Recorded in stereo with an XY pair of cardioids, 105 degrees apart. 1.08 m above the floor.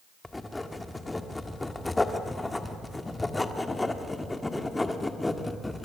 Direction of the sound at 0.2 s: 15° left.